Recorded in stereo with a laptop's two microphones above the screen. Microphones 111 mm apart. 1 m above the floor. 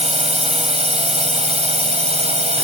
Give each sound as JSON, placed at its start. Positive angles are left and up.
{"t": 0.0, "sound": "a drone", "side_deg": -80}